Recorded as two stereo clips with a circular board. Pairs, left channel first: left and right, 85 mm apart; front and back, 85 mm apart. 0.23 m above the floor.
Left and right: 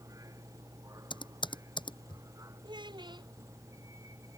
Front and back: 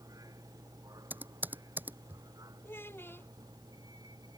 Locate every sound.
0.0 s a vehicle: 140° right
1.1 s typing on a keyboard: 110° left
2.6 s a child speaking: 65° right